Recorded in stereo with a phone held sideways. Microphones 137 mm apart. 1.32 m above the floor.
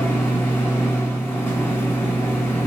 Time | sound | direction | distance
0.0 | a machine running | 15° left (ahead or behind) | 0.9 m